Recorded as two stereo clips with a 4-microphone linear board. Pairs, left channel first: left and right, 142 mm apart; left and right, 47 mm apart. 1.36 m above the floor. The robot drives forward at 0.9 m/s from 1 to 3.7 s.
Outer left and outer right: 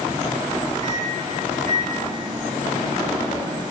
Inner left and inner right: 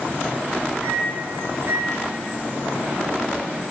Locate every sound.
0.8 s a microwave: 55° right (ahead or behind), 2.5 m; by 3.6 s 65° right (ahead or behind), 2 m